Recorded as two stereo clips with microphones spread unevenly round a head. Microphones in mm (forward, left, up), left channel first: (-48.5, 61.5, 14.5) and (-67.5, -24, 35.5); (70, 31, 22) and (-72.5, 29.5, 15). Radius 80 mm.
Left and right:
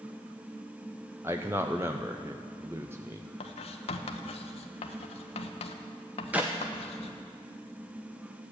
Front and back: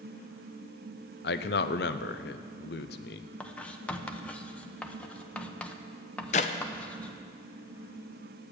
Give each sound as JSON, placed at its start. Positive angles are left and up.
{"t": 1.2, "sound": "a man speaking", "azimuth_deg": -25, "distance_m": 0.6}
{"t": 3.4, "sound": "writing", "azimuth_deg": 80, "distance_m": 0.9}
{"t": 6.3, "sound": "a clap", "azimuth_deg": -35, "distance_m": 0.6}